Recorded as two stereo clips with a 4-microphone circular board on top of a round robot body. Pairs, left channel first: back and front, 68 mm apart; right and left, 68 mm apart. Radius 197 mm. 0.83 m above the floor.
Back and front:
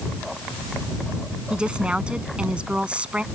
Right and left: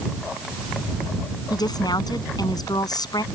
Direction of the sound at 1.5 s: 75° right.